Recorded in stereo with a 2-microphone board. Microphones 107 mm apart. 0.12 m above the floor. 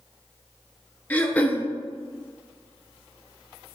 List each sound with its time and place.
1.1 s throat clearing: 15° left (ahead or behind), 0.5 m